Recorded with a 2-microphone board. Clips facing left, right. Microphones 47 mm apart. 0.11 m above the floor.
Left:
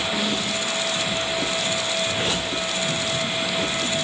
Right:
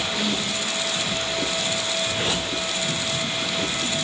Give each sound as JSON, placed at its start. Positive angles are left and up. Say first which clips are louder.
{"t": 0.1, "sound": "a snare drum", "louder": "left 1 dB", "side_deg": 15, "distance_m": 8.0}